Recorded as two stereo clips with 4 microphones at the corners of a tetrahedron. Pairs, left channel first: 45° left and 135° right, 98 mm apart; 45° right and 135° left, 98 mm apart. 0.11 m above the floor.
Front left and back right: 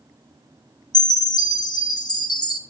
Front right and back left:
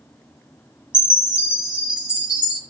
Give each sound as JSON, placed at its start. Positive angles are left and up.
{"t": 0.9, "sound": "a chime", "azimuth_deg": 60, "distance_m": 1.8}